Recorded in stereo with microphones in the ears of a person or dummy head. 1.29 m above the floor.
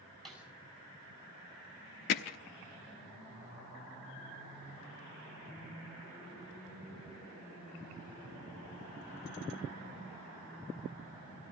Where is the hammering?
40° left (ahead or behind), 1.0 m.